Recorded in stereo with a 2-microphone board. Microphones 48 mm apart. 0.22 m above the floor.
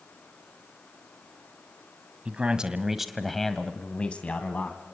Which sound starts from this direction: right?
A man speaking, at 2.2 s.